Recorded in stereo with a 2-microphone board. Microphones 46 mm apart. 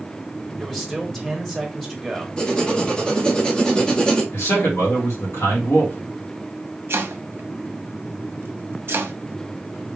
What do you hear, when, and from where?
0.6 s a man speaking: 5° left (ahead or behind), 1.2 m
2.4 s writing: 20° left (ahead or behind), 0.9 m
4.3 s a man speaking: 85° left, 1.9 m
6.9 s chopping: 60° right (ahead or behind), 0.7 m